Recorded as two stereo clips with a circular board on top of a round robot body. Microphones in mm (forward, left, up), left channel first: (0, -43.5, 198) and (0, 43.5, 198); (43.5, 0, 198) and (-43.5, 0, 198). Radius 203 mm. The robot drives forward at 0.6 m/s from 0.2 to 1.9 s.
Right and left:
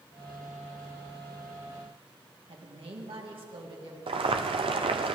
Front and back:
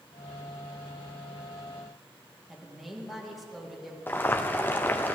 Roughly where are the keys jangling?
I don't hear keys jangling.